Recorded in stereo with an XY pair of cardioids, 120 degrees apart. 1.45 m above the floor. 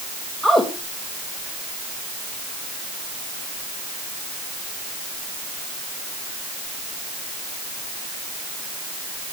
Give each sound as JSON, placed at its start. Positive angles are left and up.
{"t": 0.4, "sound": "a woman speaking", "azimuth_deg": -5, "distance_m": 2.5}